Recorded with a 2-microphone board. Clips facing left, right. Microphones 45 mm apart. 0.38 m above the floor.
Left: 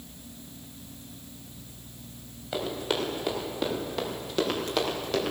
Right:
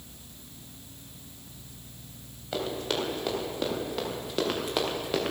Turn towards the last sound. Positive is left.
turn(degrees=-15)  # may be behind; listen again after turning